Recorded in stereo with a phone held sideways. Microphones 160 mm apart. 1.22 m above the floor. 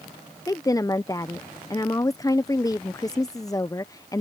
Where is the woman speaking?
20° left (ahead or behind).